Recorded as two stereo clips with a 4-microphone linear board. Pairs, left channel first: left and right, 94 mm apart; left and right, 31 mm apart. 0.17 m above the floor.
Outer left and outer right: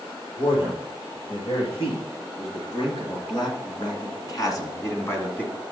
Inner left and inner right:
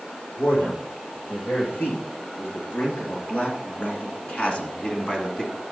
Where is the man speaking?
75° left (ahead or behind), 5.5 m; by 5.6 s 10° left (ahead or behind), 1.5 m.